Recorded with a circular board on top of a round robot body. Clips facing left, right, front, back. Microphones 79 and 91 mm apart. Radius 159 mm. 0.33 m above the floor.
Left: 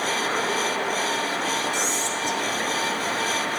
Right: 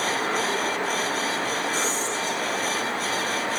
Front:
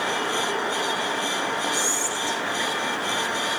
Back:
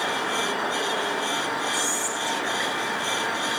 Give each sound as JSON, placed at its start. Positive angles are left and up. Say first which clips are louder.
{"t": 1.7, "sound": "whispering", "louder": "even, front 1 dB", "azimuth_deg": 70, "distance_m": 4.0}